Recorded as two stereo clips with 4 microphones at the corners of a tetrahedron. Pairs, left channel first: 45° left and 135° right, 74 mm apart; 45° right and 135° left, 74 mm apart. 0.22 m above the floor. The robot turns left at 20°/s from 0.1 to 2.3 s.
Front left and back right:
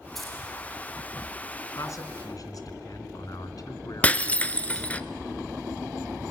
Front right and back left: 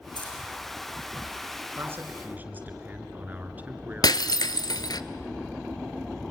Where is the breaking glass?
25° right, 0.7 m.